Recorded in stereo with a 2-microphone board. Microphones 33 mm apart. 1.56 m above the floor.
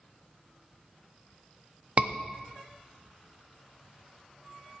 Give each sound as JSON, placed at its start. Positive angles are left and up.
{"t": 2.0, "sound": "a scream", "side_deg": -40, "distance_m": 0.9}